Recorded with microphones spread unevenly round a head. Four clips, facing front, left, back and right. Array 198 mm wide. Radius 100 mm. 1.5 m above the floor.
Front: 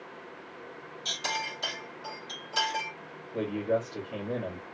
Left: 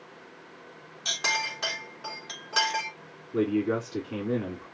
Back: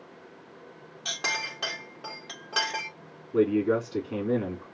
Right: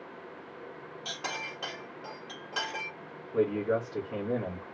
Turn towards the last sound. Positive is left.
turn(degrees=150)